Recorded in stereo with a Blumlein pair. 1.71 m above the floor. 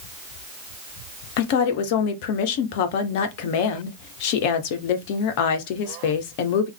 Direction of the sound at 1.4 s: 45° left.